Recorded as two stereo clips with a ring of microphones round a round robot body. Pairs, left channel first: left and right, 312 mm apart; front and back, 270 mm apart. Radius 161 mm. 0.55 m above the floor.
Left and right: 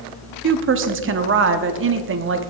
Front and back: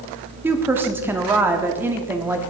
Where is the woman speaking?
100° right, 0.7 m.